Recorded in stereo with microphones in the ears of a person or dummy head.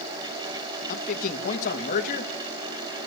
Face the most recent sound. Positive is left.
turn(degrees=50)  # may be behind; listen again after turning